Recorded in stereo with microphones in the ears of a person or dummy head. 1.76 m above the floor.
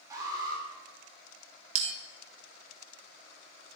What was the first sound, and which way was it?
An alarm, 25° right (ahead or behind).